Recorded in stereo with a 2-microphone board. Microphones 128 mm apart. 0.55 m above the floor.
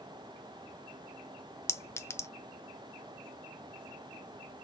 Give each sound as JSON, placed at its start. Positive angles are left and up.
{"t": 1.7, "sound": "a clink", "side_deg": 20, "distance_m": 0.6}